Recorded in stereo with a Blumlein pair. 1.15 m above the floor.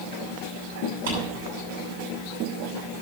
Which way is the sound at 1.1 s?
60° right.